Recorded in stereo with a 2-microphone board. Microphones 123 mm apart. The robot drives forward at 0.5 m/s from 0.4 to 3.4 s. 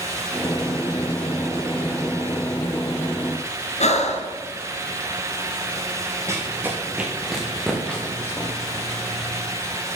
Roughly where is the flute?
I don't hear a flute.